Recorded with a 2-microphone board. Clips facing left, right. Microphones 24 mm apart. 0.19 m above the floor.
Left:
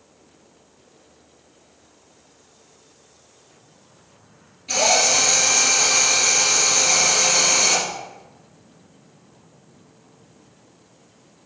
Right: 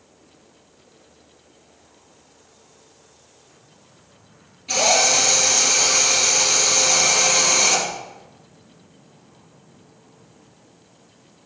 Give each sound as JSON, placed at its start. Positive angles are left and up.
{"t": 4.7, "sound": "a drill", "side_deg": 0, "distance_m": 4.0}